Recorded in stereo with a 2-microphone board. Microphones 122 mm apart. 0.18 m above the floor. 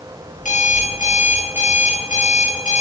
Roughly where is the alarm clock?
Left.